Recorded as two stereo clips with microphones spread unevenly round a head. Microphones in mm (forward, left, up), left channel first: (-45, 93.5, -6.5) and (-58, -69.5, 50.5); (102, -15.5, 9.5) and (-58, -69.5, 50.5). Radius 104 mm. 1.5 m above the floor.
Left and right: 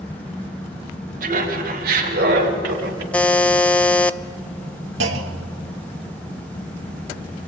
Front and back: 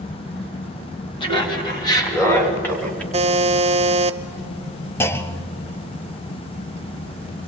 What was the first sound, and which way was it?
Laughter, 45° right.